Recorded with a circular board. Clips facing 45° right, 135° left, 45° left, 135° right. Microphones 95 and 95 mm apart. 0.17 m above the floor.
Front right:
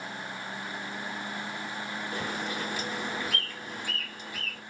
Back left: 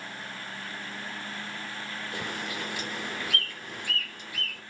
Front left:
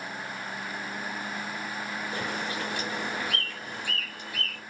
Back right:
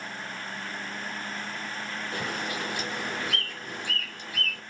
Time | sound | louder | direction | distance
2.1 | a bird | front right 2 dB, back right 1 dB | 80° right | 2.5 m